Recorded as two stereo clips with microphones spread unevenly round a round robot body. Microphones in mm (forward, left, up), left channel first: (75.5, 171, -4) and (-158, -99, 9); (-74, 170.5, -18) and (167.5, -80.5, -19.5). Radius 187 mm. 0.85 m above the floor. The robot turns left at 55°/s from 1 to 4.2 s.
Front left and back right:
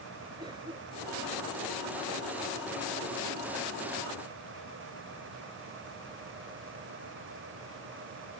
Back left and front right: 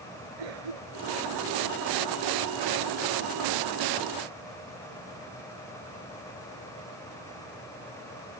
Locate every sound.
0.4 s a cough: 50° right; by 1.3 s 70° right